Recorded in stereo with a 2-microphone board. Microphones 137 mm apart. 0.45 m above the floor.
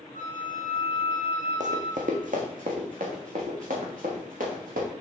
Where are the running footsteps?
65° right (ahead or behind), 1.4 m; by 4.9 s 85° right, 4 m.